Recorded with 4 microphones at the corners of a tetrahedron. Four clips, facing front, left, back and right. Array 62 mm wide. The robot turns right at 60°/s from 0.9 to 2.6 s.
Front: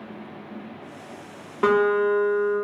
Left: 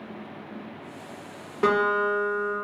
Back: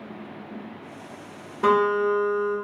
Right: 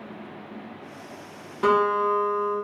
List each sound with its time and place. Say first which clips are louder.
1.6 s a guitar: right 1 dB, front 1 dB; 10° left, 1.2 m; by 2.5 s 65° left, 1.2 m